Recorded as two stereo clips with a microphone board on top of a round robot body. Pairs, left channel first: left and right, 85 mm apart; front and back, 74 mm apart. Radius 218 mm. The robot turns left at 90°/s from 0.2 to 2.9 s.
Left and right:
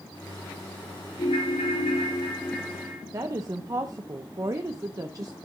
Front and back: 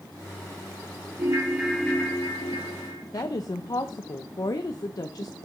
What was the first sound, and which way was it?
A ringtone, 135° left.